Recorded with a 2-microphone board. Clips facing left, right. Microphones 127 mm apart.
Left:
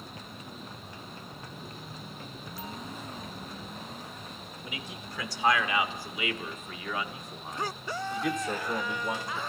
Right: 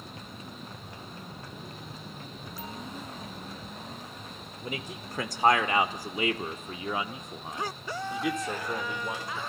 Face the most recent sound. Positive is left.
turn(degrees=10)  # may be behind; listen again after turning